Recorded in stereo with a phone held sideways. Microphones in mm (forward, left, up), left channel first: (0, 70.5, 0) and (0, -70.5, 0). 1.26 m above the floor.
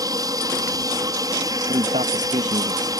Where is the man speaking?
60° right (ahead or behind).